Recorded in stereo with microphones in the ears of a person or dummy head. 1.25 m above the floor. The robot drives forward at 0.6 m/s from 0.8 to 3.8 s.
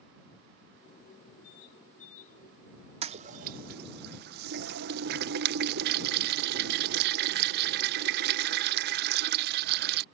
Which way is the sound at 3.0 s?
35° right (ahead or behind).